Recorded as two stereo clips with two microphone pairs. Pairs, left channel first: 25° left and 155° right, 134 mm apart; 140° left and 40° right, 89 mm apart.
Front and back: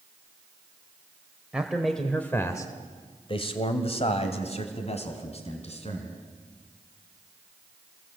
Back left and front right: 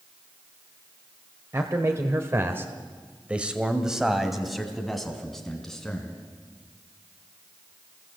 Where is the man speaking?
75° right, 1.9 m; by 6.2 s 60° left, 4.5 m.